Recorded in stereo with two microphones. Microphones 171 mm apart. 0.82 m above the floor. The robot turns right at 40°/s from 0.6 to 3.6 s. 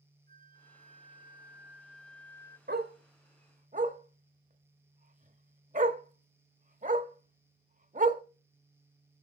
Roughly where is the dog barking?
Right.